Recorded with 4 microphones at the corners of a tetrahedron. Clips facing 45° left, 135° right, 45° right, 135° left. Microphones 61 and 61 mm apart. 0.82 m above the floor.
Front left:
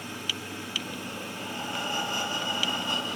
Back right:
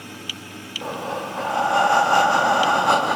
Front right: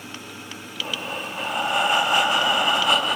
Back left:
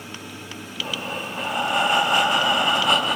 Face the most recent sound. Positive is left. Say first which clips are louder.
# back right 9 dB, back left 1 dB
turn(degrees=-135)